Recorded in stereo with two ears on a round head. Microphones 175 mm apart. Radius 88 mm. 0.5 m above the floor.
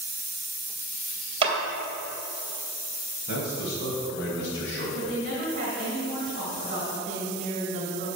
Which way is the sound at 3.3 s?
60° left (ahead or behind).